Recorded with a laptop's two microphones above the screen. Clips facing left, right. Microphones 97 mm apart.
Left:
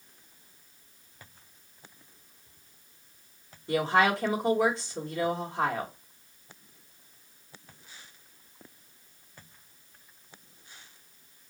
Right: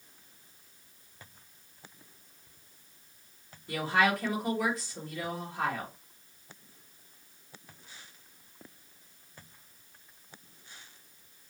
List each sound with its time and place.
3.7 s a woman speaking: 25° left (ahead or behind), 0.9 m